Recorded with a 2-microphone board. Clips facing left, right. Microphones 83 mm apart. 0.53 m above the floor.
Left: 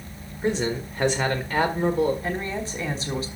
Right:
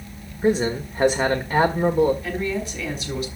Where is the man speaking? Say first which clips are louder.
Right 4 dB; 15° right (ahead or behind), 1.4 m.